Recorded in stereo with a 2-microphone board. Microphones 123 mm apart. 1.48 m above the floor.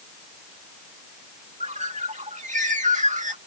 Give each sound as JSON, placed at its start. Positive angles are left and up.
{"t": 1.6, "sound": "a bird", "side_deg": -80}